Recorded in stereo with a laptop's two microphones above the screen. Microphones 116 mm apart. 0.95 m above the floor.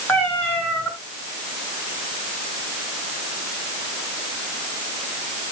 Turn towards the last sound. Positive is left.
turn(degrees=15)  # may be behind; listen again after turning